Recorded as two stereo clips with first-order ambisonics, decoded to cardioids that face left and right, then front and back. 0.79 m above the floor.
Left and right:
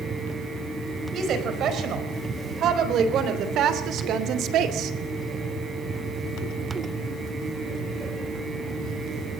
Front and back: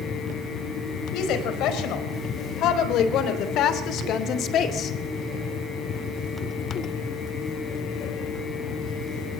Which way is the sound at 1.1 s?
35° right.